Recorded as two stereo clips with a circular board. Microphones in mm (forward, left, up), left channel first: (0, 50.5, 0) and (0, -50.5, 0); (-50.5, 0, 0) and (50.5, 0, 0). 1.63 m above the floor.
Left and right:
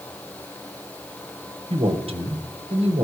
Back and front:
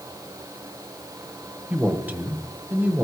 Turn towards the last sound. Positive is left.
turn(degrees=-75)